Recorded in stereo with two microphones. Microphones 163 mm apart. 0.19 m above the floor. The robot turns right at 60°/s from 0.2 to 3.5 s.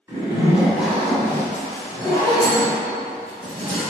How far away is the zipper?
About 1.4 m.